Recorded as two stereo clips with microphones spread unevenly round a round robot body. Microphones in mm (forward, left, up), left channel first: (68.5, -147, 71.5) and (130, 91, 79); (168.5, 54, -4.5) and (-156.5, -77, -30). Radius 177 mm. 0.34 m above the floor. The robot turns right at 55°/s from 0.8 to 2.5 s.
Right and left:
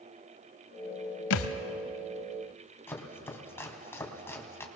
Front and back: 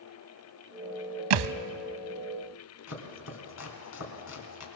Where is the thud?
140° right, 0.8 m; by 1.6 s 125° right, 0.8 m.